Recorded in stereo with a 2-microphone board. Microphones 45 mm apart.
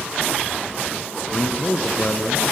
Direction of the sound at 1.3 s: 30° left (ahead or behind).